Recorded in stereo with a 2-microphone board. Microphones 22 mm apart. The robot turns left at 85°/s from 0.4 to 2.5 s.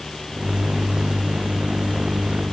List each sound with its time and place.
Only background noise.